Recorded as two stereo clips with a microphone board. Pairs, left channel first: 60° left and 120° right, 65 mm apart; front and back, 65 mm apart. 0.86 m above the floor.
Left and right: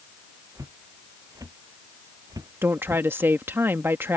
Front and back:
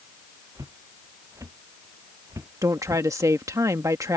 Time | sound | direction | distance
0.6 | footsteps | 150° right | ?
2.6 | a woman speaking | 165° right | ?